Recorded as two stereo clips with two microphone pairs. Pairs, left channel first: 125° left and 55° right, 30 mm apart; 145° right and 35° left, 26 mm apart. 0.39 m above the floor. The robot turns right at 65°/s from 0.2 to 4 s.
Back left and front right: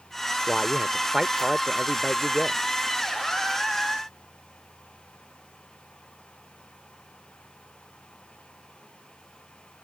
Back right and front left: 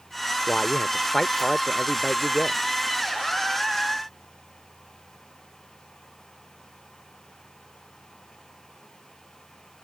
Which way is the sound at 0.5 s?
150° right.